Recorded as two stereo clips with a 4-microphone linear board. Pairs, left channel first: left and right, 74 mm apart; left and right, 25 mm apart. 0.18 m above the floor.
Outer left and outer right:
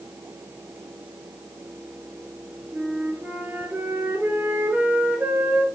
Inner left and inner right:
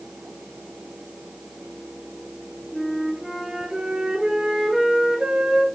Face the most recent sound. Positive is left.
turn(degrees=-25)  # may be behind; listen again after turning